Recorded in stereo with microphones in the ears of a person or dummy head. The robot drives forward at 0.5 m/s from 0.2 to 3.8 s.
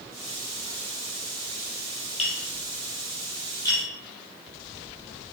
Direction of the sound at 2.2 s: 30° left (ahead or behind).